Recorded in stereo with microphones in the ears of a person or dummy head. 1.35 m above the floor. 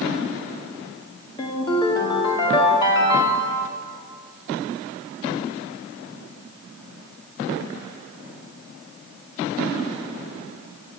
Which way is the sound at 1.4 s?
20° left (ahead or behind).